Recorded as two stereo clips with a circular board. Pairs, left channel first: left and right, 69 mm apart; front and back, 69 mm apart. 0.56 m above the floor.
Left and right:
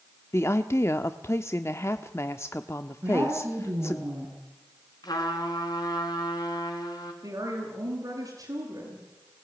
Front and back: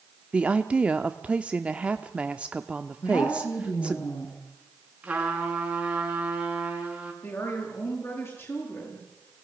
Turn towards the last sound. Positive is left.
turn(degrees=-55)